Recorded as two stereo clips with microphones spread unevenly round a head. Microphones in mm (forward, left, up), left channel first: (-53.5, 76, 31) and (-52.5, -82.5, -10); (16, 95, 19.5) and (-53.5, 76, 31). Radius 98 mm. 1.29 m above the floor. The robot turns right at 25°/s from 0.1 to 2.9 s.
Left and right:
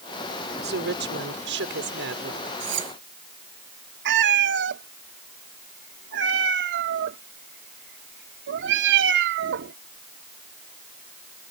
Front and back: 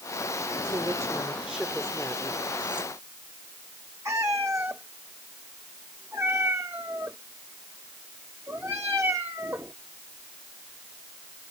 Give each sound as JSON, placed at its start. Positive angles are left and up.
{"t": 0.6, "sound": "a woman speaking", "azimuth_deg": -105}
{"t": 2.6, "sound": "cutlery clinking", "azimuth_deg": -85}
{"t": 4.0, "sound": "a cat meowing", "azimuth_deg": -95}